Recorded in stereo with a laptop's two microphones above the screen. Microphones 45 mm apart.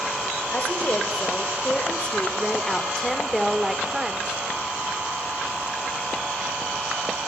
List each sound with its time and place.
0.5 s a woman speaking: 40° left (ahead or behind), 4 m; by 4.4 s 20° right (ahead or behind), 3 m